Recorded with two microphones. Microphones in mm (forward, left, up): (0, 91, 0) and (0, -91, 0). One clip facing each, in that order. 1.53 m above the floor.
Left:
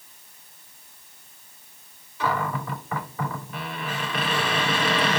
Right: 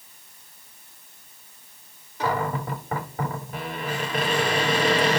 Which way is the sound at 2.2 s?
45° right (ahead or behind).